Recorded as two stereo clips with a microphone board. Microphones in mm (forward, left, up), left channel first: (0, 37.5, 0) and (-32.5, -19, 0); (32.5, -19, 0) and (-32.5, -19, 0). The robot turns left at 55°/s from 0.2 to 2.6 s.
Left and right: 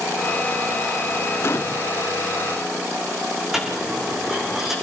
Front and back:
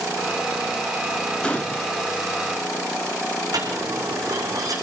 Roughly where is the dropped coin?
Behind left.